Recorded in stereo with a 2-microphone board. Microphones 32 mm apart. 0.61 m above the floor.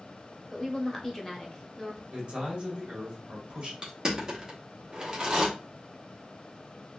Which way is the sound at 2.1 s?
35° right (ahead or behind).